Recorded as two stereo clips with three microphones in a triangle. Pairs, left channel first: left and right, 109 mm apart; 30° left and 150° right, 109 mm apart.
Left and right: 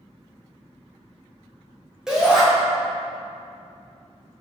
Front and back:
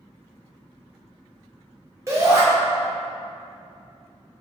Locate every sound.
2.1 s a shout: 170° right, 0.9 m